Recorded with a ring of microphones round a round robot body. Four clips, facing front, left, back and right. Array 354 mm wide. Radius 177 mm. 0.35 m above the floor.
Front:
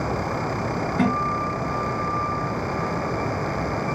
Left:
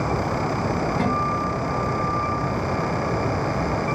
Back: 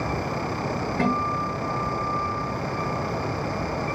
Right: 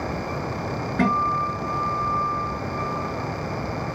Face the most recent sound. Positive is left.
turn(degrees=-50)